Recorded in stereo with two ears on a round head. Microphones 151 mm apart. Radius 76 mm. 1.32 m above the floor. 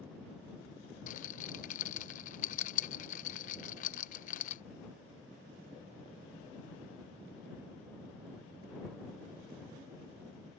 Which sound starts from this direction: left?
A rattle, at 1.1 s.